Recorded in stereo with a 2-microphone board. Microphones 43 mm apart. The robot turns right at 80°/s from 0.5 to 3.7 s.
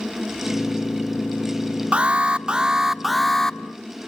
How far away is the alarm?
About 0.8 m.